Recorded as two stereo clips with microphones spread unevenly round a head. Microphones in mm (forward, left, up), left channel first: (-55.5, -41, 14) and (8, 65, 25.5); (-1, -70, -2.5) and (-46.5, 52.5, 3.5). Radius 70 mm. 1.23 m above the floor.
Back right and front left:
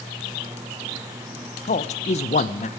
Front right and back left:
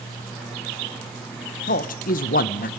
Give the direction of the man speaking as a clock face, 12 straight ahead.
3 o'clock.